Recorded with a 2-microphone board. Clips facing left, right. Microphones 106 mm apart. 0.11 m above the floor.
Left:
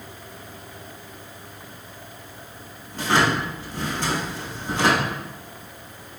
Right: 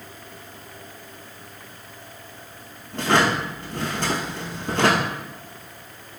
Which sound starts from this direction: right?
A drawer, at 2.9 s.